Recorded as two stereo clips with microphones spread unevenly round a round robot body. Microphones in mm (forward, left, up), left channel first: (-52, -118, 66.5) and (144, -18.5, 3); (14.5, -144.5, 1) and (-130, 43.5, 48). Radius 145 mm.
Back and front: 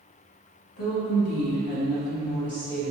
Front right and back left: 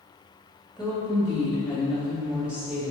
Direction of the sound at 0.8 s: 140° right.